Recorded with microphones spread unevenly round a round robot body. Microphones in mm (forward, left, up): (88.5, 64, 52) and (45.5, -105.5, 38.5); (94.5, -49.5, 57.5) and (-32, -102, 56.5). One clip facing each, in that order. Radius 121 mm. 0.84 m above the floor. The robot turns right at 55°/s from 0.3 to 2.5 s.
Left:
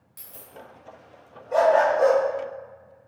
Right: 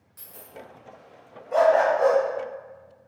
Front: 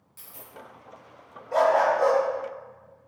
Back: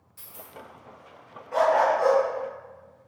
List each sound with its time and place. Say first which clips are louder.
0.2 s a dropped coin: right 1 dB, back 2 dB; 35° left, 0.9 m; by 0.5 s 50° left, 0.9 m
1.5 s a dog barking: even, even; 10° left, 0.6 m; by 2.2 s 45° left, 0.6 m